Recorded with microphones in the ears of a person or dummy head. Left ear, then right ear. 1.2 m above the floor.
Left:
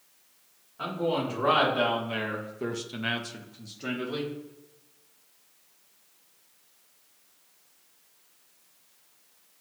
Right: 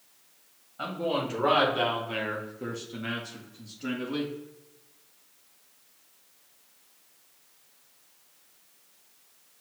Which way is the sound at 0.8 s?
15° right (ahead or behind).